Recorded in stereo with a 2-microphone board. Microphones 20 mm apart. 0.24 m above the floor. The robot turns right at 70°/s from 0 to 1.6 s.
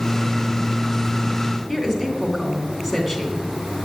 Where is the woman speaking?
Centre (ahead or behind), 2.5 m.